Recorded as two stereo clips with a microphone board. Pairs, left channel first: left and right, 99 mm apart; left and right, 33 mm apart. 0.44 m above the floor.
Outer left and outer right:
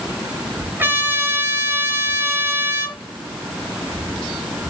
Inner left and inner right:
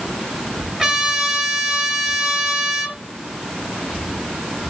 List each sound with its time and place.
0.8 s a trumpet: 20° right (ahead or behind), 3.5 m